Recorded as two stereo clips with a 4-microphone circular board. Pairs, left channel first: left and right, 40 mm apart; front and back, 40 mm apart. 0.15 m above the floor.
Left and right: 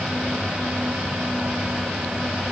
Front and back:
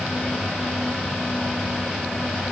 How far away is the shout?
I don't hear a shout.